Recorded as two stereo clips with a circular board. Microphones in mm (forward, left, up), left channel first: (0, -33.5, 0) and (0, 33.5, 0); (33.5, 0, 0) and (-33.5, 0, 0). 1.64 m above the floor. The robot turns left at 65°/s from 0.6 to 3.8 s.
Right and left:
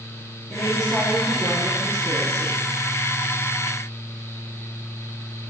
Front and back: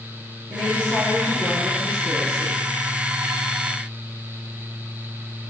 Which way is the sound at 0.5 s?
155° left.